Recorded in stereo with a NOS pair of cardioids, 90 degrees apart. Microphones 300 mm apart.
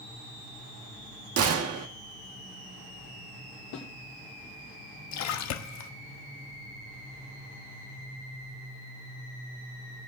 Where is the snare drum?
60° left, 5 m.